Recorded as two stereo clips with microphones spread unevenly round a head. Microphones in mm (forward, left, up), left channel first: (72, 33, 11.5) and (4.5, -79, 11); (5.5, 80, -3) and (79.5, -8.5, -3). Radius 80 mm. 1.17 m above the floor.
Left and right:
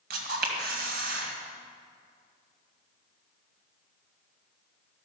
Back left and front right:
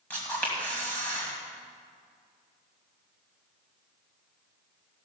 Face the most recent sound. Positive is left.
turn(degrees=-150)